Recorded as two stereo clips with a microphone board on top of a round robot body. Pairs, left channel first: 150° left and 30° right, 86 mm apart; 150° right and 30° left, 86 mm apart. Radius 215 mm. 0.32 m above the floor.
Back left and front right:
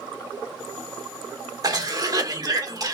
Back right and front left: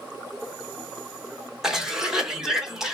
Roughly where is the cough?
Ahead right.